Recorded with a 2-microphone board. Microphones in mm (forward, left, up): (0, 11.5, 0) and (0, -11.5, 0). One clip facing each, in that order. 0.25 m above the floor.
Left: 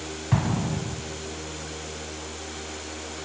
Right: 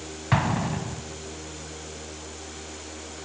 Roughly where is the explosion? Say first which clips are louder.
Right 2 dB; right.